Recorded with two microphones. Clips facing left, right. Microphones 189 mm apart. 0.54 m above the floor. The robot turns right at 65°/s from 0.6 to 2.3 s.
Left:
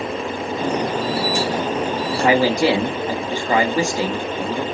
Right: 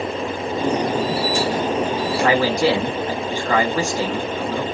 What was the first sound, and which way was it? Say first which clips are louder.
A man speaking: left 3 dB; 20° left (ahead or behind).